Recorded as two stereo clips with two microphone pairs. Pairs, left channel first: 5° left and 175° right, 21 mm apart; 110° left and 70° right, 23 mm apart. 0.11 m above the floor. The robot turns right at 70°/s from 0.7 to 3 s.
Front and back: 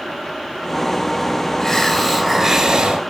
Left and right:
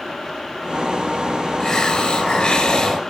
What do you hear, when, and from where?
1.6 s a hiss: 65° left, 1.7 m; by 3.0 s 165° left, 1.7 m